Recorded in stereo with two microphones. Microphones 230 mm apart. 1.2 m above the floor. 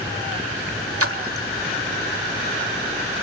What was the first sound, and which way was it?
A splash, 80° right.